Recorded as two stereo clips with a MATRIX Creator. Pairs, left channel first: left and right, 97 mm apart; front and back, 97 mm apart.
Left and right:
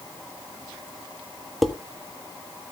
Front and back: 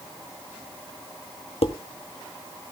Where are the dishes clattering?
Straight ahead, 1.1 m.